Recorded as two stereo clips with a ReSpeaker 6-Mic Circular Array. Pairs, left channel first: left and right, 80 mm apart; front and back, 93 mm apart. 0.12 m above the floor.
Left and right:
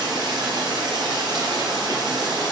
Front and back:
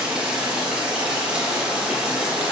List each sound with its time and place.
0.0 s running water: 100° right, 3 m